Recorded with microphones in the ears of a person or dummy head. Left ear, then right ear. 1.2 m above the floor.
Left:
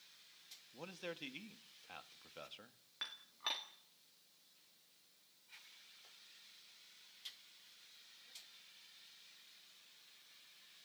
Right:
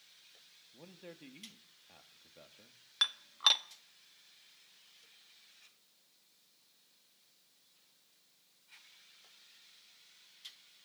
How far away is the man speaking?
About 1.5 m.